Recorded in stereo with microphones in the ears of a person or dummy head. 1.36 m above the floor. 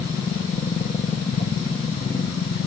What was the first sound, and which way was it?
A machine running, 30° left (ahead or behind).